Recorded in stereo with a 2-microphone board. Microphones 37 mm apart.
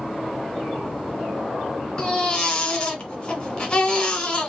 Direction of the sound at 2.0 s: 25° left (ahead or behind).